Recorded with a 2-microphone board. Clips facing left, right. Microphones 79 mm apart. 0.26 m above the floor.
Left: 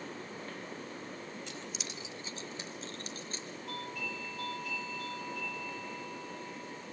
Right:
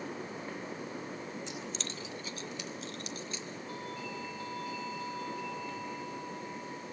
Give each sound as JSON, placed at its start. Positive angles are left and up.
{"t": 1.5, "sound": "keys jangling", "side_deg": -25, "distance_m": 0.6}
{"t": 3.7, "sound": "a doorbell", "side_deg": 75, "distance_m": 9.0}